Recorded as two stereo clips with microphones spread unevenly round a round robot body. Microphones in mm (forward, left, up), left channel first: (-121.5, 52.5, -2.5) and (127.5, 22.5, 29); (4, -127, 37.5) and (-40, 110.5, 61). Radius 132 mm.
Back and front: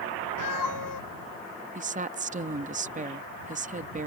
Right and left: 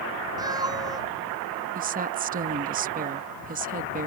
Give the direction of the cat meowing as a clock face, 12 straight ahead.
6 o'clock.